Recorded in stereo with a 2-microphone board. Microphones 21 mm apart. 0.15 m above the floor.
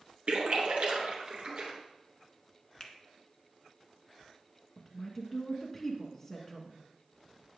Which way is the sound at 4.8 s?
5° left (ahead or behind).